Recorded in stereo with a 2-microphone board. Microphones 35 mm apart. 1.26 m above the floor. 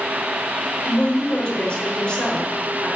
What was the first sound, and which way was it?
A woman speaking, 30° left (ahead or behind).